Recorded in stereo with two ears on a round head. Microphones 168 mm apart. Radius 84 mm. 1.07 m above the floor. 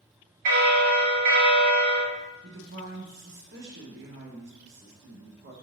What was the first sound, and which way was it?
A bell, 55° right (ahead or behind).